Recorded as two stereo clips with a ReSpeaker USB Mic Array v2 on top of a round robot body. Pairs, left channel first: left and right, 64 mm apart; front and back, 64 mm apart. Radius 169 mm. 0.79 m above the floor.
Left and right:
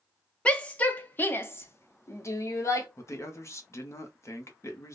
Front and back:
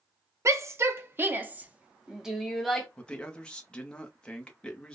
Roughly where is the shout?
Behind.